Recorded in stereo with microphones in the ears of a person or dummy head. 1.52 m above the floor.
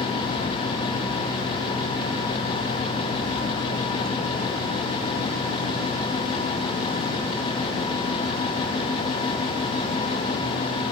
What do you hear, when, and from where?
Only background noise.